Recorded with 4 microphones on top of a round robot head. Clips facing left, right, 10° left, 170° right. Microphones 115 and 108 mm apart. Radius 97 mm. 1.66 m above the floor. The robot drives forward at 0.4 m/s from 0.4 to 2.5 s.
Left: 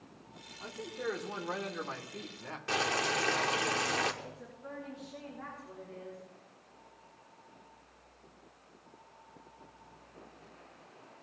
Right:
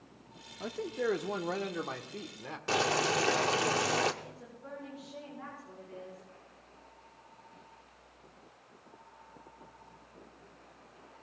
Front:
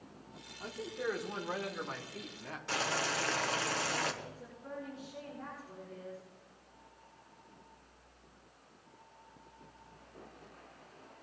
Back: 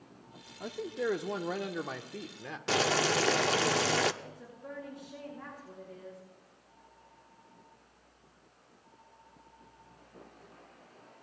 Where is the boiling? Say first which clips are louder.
Right 3 dB, back 7 dB; 155° right, 0.5 m.